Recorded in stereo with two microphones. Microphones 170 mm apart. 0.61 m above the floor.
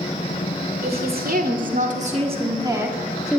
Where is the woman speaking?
65° right (ahead or behind), 2 m; by 3.4 s 5° left (ahead or behind), 1.2 m.